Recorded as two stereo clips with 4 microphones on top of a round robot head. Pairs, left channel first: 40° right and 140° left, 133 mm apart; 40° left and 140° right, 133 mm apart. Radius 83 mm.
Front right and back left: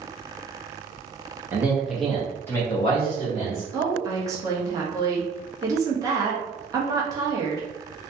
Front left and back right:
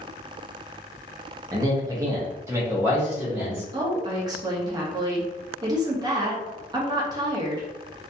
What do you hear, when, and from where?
1.5 s a man speaking: 165° right, 1.0 m; by 3.6 s 65° right, 1.3 m
3.7 s a woman speaking: 175° right, 0.7 m